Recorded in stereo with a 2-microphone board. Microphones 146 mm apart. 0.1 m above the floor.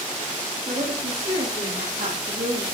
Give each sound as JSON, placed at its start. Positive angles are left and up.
{"t": 0.7, "sound": "a woman speaking", "side_deg": -75, "distance_m": 9.0}